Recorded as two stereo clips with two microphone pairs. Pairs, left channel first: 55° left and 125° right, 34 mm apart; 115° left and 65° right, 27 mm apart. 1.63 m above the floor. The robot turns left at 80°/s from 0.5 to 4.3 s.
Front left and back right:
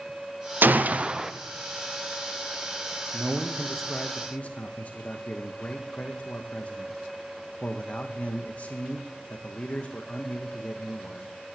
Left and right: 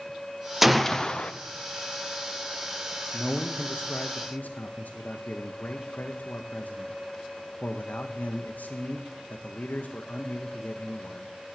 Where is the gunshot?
150° right, 0.6 m; by 1.3 s 155° left, 0.6 m.